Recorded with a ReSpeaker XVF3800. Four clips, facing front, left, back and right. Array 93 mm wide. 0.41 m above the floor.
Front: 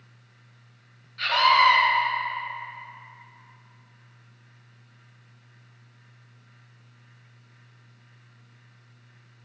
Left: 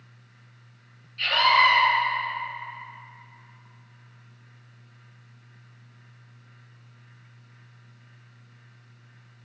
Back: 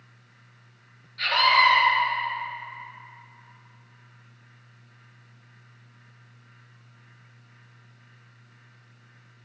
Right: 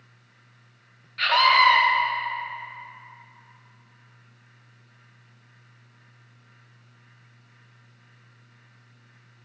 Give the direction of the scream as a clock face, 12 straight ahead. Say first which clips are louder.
Right 2 dB, front 1 dB; 3 o'clock.